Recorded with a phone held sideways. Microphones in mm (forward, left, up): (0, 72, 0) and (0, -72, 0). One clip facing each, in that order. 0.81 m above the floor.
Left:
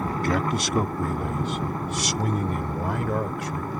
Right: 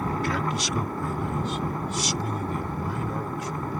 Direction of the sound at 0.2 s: 50° left (ahead or behind).